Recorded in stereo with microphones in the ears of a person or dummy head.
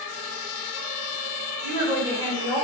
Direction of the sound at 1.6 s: 30° right (ahead or behind).